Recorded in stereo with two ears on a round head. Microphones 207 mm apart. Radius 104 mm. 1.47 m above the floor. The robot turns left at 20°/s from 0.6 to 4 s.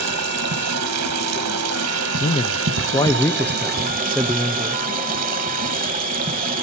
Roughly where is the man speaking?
Ahead left.